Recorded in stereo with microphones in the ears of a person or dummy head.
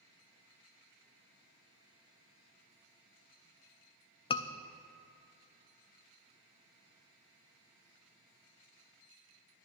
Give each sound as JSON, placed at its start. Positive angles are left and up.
{"t": 4.3, "sound": "a scream", "side_deg": 30, "distance_m": 0.5}